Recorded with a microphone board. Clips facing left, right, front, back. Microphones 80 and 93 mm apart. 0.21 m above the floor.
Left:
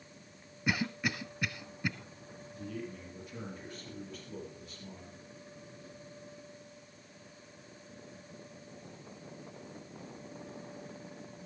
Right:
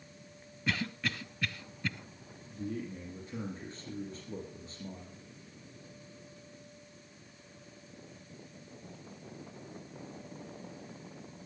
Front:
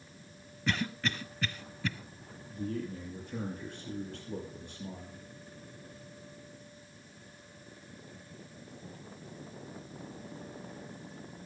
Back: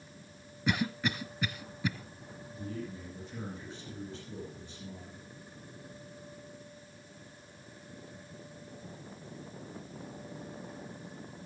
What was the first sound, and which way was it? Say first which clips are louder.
A cough: left 2 dB, back 2 dB; 130° left.